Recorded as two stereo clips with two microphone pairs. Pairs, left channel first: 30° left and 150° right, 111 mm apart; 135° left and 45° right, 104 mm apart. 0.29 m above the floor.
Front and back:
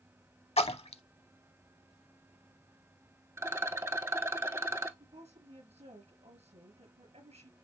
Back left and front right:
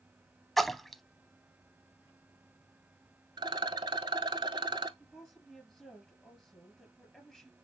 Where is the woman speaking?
145° right, 4.5 m.